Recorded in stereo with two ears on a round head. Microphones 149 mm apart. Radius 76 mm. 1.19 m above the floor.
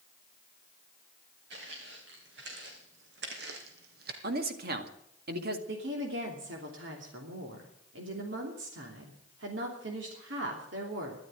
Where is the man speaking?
60° right (ahead or behind), 2 m.